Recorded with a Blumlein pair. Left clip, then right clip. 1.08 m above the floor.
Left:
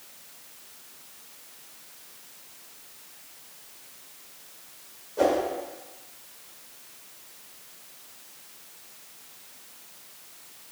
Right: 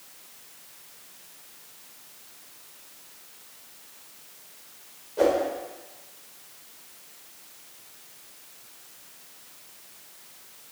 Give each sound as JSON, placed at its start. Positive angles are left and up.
{"t": 5.2, "sound": "a whoosh", "azimuth_deg": 0, "distance_m": 1.8}